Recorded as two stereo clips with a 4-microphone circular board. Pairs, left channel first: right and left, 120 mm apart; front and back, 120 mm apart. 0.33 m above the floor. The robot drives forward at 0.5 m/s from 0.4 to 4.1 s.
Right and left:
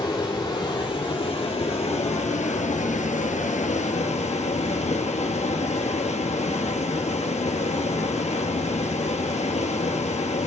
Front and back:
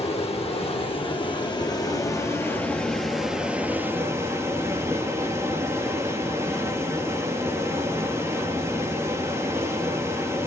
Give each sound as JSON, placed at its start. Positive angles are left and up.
{"t": 0.0, "sound": "running water", "azimuth_deg": -40, "distance_m": 1.8}